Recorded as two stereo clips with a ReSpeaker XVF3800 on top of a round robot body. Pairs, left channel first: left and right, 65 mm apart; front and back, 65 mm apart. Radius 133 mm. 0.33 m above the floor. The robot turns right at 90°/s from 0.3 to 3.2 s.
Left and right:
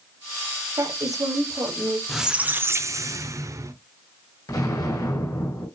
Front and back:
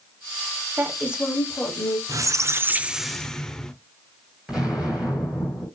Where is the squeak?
Straight behind, 0.8 m; by 3.7 s 80° right, 0.8 m.